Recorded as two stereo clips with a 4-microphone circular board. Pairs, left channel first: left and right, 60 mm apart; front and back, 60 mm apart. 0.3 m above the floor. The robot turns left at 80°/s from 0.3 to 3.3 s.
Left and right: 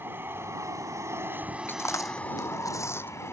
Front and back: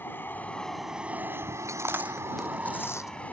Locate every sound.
0.0 s an aircraft: 45° right; by 3.3 s 60° left
1.7 s chewing: 145° left; by 3.1 s 35° left